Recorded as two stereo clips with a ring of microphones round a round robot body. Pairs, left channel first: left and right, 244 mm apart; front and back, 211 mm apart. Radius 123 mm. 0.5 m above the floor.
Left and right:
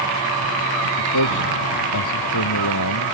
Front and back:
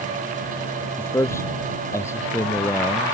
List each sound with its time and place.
1.0 s a man speaking: 80° left